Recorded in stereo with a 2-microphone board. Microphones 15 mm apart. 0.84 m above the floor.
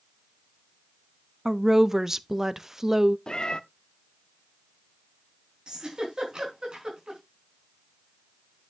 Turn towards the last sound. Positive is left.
turn(degrees=-65)  # may be behind; listen again after turning